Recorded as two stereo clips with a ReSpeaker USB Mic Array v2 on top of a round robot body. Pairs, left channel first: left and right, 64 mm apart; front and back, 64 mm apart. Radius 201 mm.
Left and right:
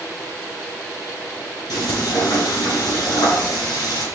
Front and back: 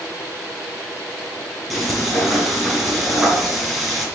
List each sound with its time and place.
1.7 s frying: 90° left, 7.5 m